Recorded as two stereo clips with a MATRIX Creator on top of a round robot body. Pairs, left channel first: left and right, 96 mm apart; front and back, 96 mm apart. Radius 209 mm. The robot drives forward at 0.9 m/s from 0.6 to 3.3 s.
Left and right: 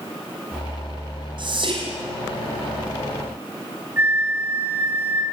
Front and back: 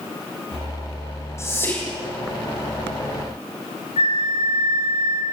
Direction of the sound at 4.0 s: 15° right.